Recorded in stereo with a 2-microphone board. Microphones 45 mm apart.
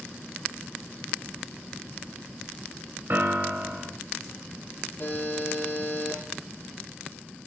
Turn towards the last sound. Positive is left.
turn(degrees=55)  # may be behind; listen again after turning